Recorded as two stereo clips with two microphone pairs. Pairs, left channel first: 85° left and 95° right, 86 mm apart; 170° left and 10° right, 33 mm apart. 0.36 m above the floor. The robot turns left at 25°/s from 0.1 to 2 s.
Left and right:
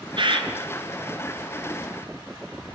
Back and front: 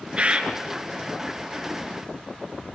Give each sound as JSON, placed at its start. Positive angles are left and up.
{"t": 0.2, "sound": "a bird", "azimuth_deg": -65, "distance_m": 3.0}